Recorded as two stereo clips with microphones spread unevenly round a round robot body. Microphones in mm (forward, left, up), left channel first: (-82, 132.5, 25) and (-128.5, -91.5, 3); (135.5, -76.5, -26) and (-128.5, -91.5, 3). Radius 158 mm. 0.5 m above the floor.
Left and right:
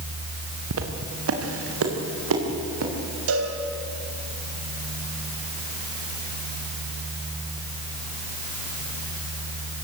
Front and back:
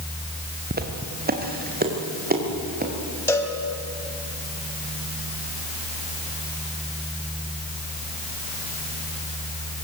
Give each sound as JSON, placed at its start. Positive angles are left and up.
{"t": 0.7, "sound": "footsteps", "azimuth_deg": -125, "distance_m": 3.5}
{"t": 3.3, "sound": "a cowbell", "azimuth_deg": -75, "distance_m": 3.0}